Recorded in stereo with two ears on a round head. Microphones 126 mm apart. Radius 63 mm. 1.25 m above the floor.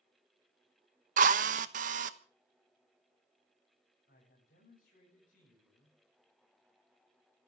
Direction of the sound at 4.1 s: 70° left (ahead or behind).